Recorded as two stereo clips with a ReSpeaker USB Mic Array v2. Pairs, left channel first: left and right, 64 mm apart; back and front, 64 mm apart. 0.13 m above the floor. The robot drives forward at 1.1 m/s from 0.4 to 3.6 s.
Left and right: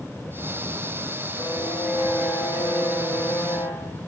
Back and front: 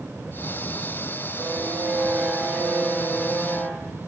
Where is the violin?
50° left, 3 m; by 4.0 s 110° left, 2.5 m.